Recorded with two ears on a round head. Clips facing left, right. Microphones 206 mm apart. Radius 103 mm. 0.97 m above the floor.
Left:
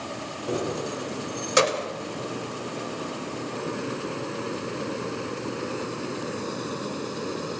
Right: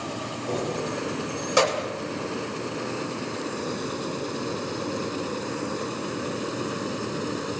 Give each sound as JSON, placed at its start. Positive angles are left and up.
{"t": 0.5, "sound": "keys jangling", "side_deg": 15, "distance_m": 1.7}